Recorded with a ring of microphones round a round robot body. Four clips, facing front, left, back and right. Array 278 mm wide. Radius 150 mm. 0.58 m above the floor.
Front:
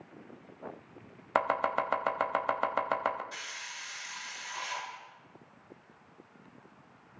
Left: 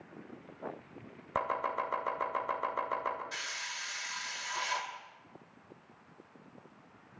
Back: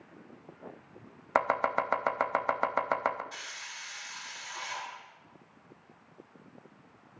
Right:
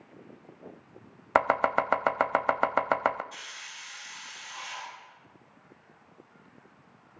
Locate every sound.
1.4 s chopping: 100° right, 0.7 m
3.3 s a hiss: 90° left, 3.5 m